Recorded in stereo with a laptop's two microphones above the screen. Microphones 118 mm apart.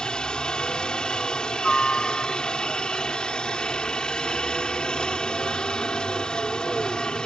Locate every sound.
0.0 s a helicopter: 5° left (ahead or behind)